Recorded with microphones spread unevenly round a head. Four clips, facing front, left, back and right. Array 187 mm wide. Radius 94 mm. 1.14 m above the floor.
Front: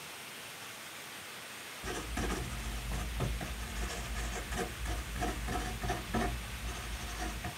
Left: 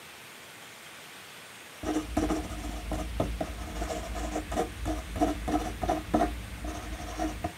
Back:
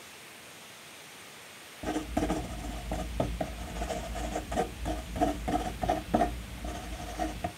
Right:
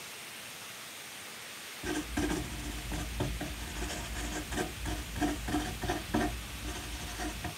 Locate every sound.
1.8 s writing: 140° left, 0.9 m